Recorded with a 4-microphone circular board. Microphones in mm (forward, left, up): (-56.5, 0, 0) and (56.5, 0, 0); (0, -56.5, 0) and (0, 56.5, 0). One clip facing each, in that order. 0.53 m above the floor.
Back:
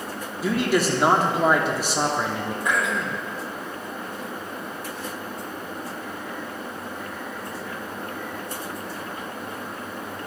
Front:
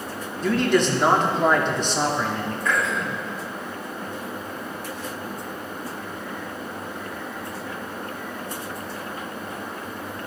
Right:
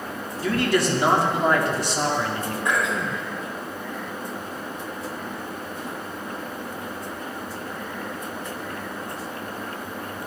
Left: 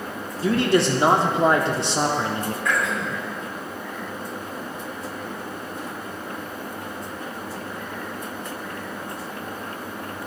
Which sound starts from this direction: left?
A man speaking, at 0.4 s.